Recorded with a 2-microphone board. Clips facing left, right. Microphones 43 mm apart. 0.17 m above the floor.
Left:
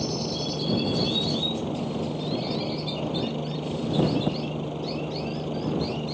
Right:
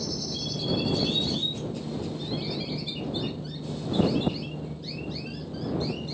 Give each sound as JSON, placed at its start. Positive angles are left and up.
{"t": 0.0, "sound": "a helicopter", "side_deg": 70}